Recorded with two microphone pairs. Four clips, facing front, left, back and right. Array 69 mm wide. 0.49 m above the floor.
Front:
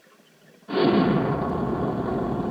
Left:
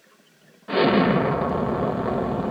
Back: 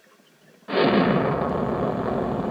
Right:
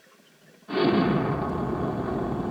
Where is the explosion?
130° left, 1.2 m.